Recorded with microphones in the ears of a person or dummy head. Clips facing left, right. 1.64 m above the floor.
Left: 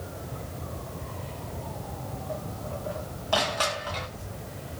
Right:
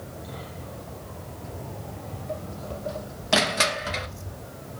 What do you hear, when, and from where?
1.4 s footsteps: 20° right (ahead or behind), 2.0 m; by 4.3 s 70° right (ahead or behind), 5.5 m
3.3 s crushing: 30° right (ahead or behind), 1.0 m